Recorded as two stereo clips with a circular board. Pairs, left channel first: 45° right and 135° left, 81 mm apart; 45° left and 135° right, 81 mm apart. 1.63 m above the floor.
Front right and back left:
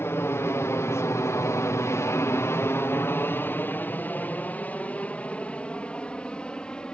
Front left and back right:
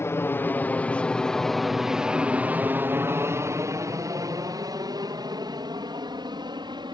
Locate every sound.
0.0 s an aircraft: straight ahead; by 6.9 s 125° right